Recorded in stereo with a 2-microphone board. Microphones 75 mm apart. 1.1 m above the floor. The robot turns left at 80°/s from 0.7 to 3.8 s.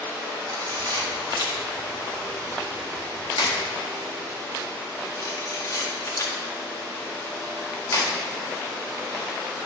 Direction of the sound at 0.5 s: 65° right (ahead or behind).